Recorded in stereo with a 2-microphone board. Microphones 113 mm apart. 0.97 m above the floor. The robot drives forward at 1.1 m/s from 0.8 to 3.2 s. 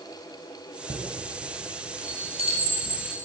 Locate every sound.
0.9 s a chime: 50° right (ahead or behind), 6 m; by 3.1 s 75° right (ahead or behind), 5 m